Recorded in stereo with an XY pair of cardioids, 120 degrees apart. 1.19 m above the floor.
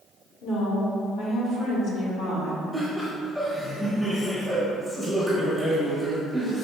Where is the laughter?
10° left, 0.8 m.